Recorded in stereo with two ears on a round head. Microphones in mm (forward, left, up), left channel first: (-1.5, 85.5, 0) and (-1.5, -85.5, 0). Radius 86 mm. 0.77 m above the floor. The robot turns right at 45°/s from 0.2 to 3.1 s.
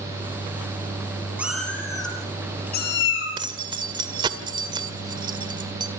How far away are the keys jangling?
About 2.0 m.